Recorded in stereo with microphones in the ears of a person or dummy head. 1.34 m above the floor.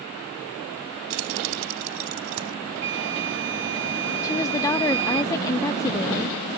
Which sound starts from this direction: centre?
A woman speaking, at 4.2 s.